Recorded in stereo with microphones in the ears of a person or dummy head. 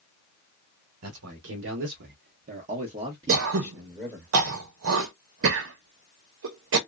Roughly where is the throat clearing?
Right.